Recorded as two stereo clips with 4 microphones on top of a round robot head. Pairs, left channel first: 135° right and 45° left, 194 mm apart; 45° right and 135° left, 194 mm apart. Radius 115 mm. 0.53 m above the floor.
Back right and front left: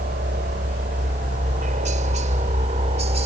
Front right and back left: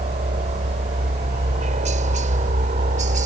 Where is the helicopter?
85° left; by 3.3 s 95° left.